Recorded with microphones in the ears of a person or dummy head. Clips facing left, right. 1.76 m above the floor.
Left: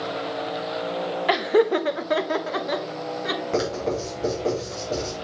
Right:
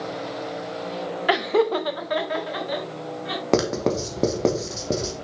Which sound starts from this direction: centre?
Laughter, at 1.3 s.